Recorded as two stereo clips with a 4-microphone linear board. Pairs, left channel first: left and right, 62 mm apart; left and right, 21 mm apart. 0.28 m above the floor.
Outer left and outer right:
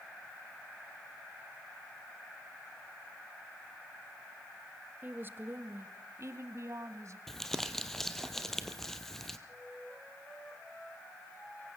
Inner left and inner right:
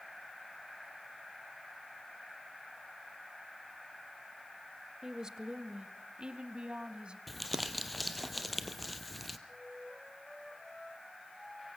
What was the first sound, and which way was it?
A woman speaking, 30° right (ahead or behind).